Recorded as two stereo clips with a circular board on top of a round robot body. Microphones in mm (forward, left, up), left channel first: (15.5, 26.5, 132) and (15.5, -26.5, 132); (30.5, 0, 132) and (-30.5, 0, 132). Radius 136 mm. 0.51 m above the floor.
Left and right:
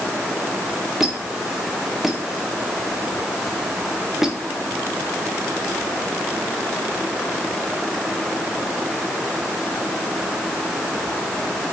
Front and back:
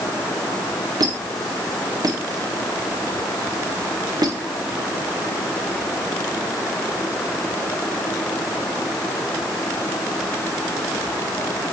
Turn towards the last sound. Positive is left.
turn(degrees=-175)